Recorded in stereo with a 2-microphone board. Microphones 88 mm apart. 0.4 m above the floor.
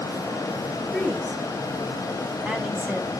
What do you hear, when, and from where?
0.9 s a woman speaking: centre (ahead or behind), 4 m; by 3.1 s 20° right (ahead or behind), 3.5 m